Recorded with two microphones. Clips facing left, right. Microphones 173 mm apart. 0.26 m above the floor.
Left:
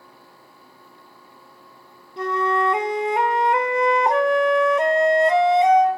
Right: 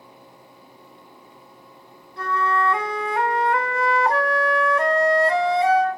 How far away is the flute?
About 0.6 m.